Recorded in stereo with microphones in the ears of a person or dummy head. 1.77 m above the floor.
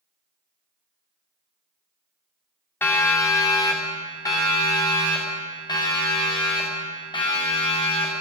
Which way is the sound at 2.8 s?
10° left (ahead or behind).